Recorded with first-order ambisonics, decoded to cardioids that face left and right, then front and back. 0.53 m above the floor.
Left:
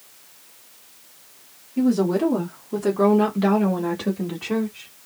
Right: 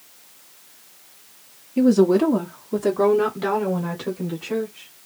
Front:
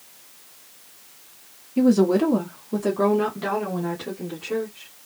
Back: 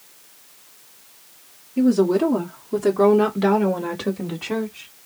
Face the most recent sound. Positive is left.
turn(degrees=155)